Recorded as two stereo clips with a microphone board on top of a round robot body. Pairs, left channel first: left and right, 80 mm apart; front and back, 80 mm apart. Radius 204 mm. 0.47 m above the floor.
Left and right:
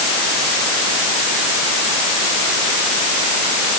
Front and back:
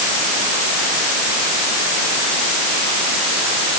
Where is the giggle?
No giggle in this recording.